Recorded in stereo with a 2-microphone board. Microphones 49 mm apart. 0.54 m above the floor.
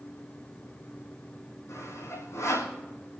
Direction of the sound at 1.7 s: 85° left.